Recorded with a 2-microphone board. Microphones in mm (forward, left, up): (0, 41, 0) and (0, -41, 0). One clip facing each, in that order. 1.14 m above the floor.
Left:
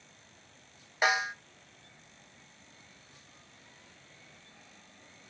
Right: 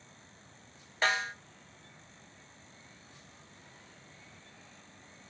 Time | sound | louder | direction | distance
1.0 | a snare drum | left 2 dB | 15° left (ahead or behind) | 0.8 m